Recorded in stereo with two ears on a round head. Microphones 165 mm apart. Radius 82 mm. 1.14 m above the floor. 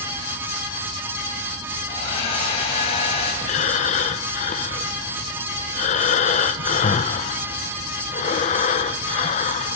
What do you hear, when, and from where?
1.9 s a hair dryer: 35° left (ahead or behind), 6 m
3.4 s breathing: 40° left (ahead or behind), 0.9 m